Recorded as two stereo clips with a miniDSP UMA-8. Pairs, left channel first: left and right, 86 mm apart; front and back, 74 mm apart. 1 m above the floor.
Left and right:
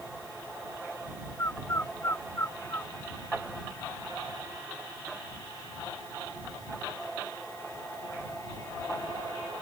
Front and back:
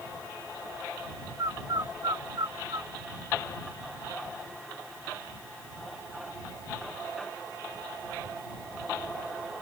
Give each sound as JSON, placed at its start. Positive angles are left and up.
{"t": 1.4, "sound": "a bird", "azimuth_deg": 150}